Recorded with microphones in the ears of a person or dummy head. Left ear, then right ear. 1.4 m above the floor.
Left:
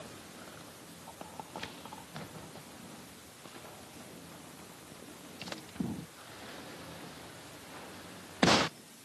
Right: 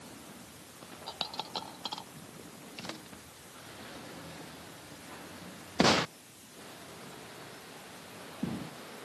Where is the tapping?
I don't hear tapping.